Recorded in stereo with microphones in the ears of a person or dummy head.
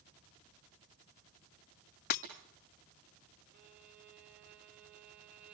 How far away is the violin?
About 3.5 m.